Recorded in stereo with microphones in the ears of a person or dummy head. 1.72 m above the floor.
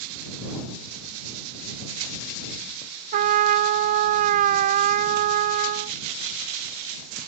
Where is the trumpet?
50° right (ahead or behind).